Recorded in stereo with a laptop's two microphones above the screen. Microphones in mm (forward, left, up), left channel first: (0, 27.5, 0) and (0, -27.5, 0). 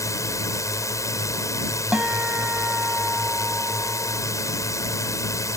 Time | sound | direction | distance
0.0 | a drone | 70° left (ahead or behind) | ?
1.9 | a guitar | 25° right (ahead or behind) | ?